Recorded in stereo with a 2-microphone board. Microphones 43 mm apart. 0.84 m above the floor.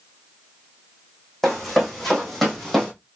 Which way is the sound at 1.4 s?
Centre (ahead or behind).